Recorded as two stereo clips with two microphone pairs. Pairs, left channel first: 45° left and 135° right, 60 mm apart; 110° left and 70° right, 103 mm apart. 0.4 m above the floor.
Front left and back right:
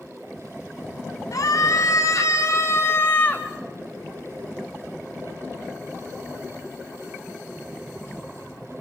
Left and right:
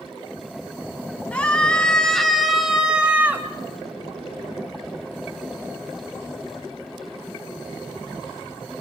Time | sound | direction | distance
1.3 | a scream | 30° left | 3.5 m